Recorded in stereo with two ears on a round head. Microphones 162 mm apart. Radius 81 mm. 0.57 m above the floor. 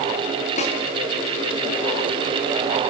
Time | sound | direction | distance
0.6 | a snare drum | 40° left (ahead or behind) | 5 m